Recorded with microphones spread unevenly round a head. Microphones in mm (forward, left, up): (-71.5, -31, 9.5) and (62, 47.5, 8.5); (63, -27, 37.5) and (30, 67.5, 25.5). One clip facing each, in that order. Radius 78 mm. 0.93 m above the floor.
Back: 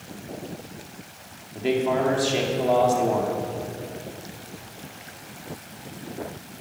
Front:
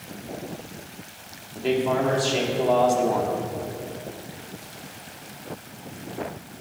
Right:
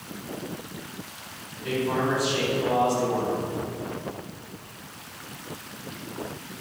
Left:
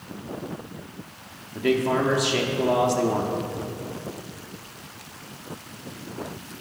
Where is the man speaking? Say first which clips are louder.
Even, left 5 dB; 125° left, 2 m.